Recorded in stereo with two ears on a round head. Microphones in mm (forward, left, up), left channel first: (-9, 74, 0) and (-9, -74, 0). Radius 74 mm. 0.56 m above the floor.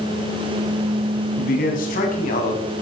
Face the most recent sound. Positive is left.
turn(degrees=45)  # may be behind; listen again after turning